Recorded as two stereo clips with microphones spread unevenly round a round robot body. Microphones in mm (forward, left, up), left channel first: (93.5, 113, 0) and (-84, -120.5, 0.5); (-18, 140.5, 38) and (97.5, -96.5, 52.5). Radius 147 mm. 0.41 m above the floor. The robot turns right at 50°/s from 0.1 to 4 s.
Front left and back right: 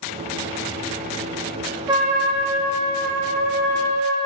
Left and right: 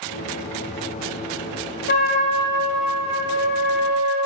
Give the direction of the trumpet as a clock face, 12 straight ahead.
7 o'clock.